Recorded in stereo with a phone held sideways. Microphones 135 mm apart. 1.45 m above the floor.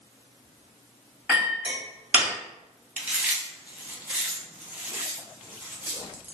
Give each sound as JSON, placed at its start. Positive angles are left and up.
{"t": 1.3, "sound": "a clink", "side_deg": -10, "distance_m": 1.3}
{"t": 3.0, "sound": "chewing", "side_deg": -10, "distance_m": 0.5}